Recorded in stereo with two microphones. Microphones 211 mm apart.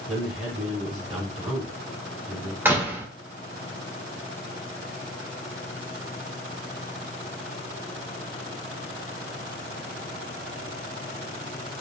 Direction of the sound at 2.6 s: 10° right (ahead or behind).